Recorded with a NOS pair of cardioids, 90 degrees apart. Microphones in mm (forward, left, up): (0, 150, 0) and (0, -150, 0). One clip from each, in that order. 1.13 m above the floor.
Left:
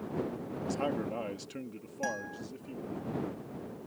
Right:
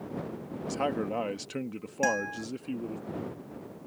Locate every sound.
0.7 s a man speaking: 30° right; by 3.0 s 80° right
2.0 s a guitar: 45° right